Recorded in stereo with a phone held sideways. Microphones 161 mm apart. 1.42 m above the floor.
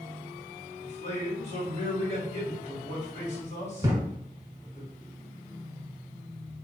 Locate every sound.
0.8 s a man speaking: 45° left (ahead or behind), 2 m
3.8 s a thud: 20° right (ahead or behind), 1.3 m